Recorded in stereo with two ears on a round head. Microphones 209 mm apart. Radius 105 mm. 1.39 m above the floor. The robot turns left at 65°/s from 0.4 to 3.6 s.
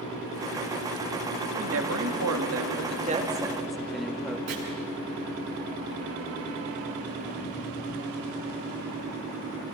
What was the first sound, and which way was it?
A woman speaking, 50° right.